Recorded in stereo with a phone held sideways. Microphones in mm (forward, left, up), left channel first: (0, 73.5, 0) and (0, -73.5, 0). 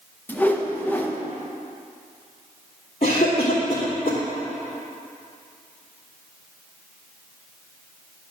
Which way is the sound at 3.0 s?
45° left (ahead or behind).